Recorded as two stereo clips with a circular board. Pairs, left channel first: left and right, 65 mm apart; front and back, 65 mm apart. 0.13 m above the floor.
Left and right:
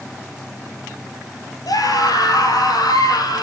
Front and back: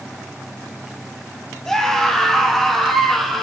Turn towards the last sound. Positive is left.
turn(degrees=90)